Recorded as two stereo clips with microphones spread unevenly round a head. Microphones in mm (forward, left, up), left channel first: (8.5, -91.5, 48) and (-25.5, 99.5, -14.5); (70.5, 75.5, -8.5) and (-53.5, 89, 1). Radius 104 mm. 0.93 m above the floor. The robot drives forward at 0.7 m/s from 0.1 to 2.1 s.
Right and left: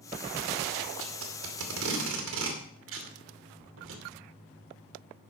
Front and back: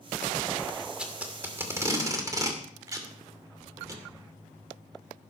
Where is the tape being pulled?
90° left, 2.5 m; by 4.0 s 110° left, 2.5 m.